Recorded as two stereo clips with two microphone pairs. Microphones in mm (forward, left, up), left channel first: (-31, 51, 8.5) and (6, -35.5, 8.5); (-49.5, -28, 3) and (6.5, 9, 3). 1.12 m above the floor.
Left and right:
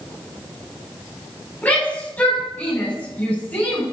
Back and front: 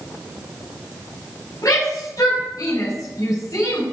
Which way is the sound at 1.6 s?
175° right.